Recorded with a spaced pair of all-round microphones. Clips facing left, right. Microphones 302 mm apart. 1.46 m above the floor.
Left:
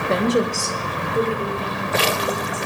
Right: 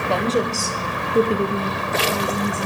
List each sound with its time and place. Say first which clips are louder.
0.1 s a woman speaking: left 2 dB; 25° left (ahead or behind), 0.9 m; by 2.7 s 80° right, 1.6 m